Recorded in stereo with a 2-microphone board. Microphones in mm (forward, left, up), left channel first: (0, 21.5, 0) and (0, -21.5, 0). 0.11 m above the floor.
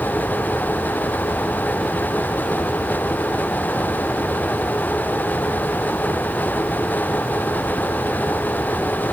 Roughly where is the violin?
I don't hear a violin.